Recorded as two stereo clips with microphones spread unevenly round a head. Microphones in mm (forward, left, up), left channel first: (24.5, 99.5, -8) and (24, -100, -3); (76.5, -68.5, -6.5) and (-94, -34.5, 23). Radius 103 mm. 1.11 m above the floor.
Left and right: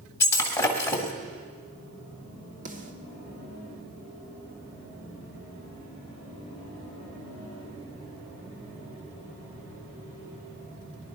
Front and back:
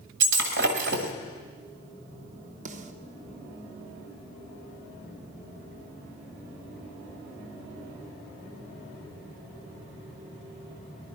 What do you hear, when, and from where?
0.2 s breaking glass: 170° left, 1.8 m
2.6 s a snare drum: 145° right, 1.4 m